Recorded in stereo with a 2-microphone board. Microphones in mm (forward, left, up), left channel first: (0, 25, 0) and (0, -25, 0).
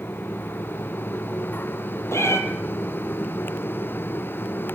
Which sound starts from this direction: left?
A cat meowing, at 2.1 s.